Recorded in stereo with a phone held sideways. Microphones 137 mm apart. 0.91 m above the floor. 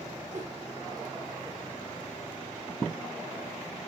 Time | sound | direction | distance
0.3 | a whoosh | 65° right (ahead or behind) | 4 m